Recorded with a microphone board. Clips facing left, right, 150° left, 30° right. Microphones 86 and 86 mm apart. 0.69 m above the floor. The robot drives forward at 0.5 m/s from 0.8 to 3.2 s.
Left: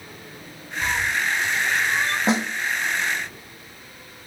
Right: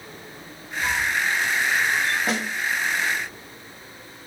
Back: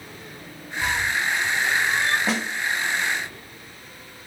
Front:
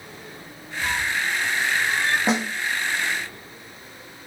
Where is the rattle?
No rattle in this recording.